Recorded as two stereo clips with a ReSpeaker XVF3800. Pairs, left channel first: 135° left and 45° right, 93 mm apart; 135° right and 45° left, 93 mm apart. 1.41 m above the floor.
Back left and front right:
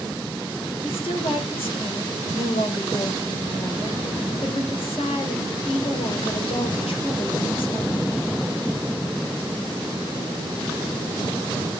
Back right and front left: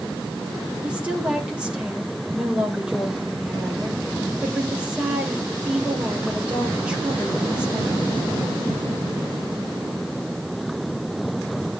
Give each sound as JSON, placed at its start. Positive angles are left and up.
{"t": 0.8, "sound": "a woman speaking", "azimuth_deg": 125, "distance_m": 5.5}